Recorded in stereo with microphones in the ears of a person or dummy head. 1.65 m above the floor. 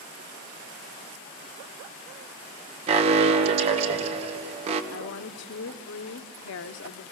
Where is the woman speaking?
65° left (ahead or behind), 0.9 m.